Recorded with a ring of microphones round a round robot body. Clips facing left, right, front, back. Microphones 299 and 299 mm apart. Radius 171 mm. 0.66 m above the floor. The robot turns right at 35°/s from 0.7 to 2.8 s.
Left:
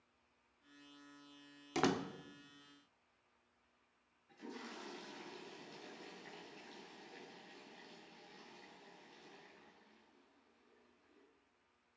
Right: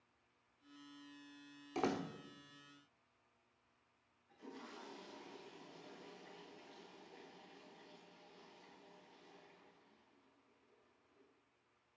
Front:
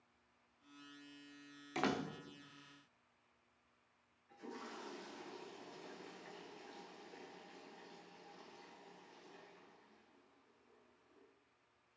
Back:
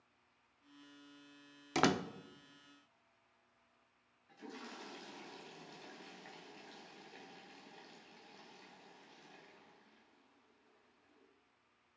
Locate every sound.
1.8 s a door slam: 150° left, 0.8 m; by 2.1 s 160° left, 0.8 m
4.3 s a toilet flushing: 145° left, 4.5 m